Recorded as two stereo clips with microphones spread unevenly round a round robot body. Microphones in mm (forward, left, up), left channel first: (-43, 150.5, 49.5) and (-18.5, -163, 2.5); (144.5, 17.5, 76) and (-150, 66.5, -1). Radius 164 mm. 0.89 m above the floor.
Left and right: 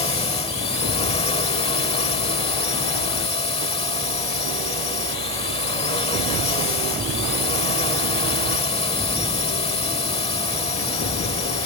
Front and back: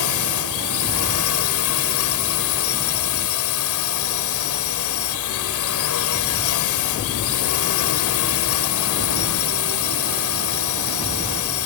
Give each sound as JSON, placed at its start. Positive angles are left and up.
{"t": 0.0, "sound": "a drone", "azimuth_deg": 20}